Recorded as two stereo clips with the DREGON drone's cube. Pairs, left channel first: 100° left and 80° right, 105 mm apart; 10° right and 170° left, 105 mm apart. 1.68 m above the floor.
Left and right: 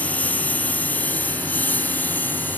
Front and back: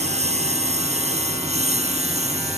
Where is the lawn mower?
Straight behind; by 2.6 s 175° left.